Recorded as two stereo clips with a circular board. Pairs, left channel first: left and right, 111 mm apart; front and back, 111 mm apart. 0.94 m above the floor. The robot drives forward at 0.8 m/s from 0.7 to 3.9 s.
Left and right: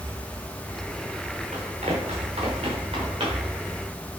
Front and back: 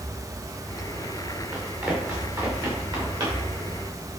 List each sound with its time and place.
1.5 s running footsteps: 105° right, 5 m; by 3.6 s 130° right, 7 m